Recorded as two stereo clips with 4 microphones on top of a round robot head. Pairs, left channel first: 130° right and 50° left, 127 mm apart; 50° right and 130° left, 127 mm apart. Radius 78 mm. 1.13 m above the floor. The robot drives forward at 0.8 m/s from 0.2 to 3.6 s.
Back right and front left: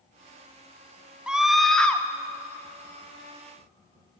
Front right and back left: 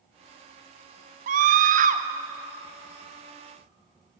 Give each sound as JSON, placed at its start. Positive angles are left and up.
{"t": 1.3, "sound": "a scream", "azimuth_deg": 135, "distance_m": 1.3}